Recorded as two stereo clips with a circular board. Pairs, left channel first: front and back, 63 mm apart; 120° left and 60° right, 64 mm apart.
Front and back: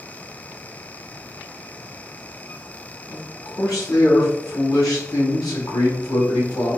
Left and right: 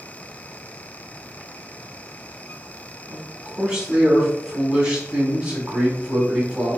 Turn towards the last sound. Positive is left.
turn(degrees=15)